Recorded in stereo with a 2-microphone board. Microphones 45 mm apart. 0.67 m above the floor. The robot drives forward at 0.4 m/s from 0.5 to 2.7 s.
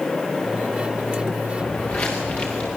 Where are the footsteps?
40° left (ahead or behind), 5 m; by 2.7 s 35° left (ahead or behind), 6.5 m.